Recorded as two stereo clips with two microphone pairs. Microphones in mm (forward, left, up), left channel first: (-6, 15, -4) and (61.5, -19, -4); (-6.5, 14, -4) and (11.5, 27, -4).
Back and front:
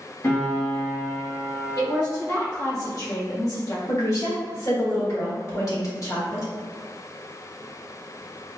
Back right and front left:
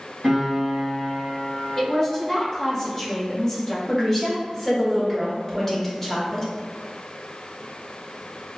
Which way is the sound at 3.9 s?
145° left.